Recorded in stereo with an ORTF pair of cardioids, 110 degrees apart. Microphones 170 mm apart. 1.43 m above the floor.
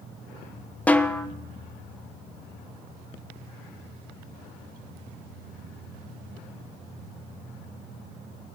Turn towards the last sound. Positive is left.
turn(degrees=10)